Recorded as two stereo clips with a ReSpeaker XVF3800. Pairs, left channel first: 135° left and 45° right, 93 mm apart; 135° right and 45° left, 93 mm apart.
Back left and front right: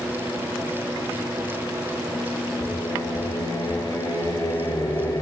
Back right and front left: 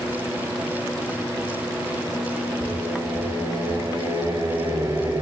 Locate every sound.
2.6 s singing: 95° left, 2.5 m